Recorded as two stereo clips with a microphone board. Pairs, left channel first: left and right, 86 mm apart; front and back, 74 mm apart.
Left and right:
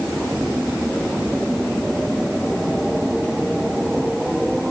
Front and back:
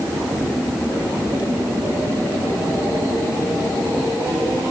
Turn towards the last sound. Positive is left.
No sound to turn to.